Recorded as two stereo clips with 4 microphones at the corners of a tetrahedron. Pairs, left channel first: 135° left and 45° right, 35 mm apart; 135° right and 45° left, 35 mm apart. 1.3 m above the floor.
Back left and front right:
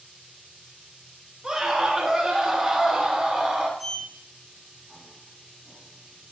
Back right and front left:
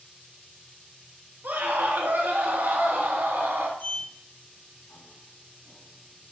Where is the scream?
25° left, 7 m; by 3.7 s 35° left, 8 m.